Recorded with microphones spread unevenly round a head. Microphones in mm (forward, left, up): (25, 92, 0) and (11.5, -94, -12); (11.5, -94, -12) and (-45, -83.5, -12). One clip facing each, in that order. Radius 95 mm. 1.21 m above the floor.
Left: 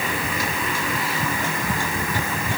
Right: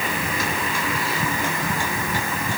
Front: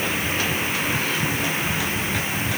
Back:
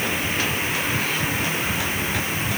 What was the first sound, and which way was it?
Only background noise.